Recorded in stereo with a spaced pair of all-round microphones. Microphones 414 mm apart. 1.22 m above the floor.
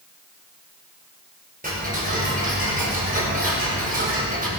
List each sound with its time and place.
1.6 s ticking: 20° right (ahead or behind), 5.5 m